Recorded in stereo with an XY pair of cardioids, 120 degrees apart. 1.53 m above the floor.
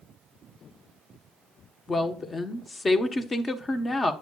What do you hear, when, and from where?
1.9 s a woman speaking: 25° left, 1.0 m